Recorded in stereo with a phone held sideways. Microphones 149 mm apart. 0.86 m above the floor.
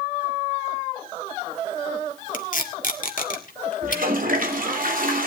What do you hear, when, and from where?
2.3 s tape being pulled: 60° left (ahead or behind), 2.0 m
3.8 s a toilet flushing: 65° right (ahead or behind), 2.5 m